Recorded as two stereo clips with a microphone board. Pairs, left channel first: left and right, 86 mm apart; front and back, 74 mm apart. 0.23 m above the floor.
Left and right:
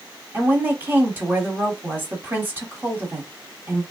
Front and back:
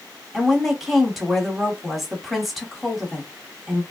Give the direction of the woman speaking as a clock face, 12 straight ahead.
3 o'clock.